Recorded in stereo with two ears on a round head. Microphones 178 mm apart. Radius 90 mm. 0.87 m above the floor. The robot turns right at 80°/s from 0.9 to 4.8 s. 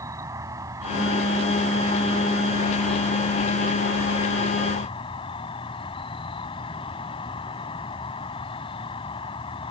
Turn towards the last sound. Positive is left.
turn(degrees=150)